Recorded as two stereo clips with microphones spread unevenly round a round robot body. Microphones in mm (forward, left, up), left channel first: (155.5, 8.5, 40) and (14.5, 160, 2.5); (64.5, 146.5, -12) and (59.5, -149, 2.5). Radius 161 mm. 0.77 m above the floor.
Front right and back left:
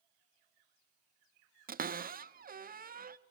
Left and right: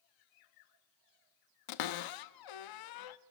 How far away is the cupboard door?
About 0.7 m.